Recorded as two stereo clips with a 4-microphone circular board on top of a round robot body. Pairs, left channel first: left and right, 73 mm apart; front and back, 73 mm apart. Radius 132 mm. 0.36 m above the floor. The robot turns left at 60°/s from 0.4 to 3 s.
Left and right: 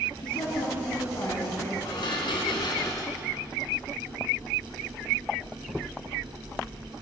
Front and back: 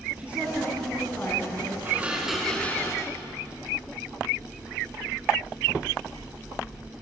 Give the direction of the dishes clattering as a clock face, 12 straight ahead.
8 o'clock.